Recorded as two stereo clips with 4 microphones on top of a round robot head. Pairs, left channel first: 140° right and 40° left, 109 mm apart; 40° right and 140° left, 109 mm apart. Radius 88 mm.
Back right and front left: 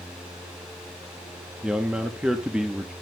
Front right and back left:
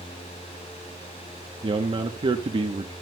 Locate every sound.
1.6 s a man speaking: 120° left, 1.0 m